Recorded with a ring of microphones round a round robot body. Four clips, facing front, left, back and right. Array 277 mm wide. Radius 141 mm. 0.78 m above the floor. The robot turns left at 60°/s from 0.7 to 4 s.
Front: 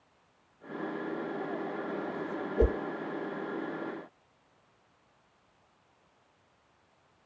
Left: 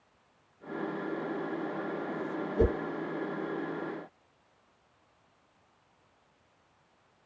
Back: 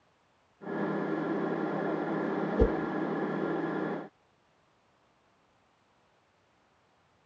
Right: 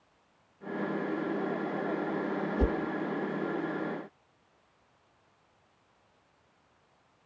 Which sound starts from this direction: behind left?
A whoosh, at 2.6 s.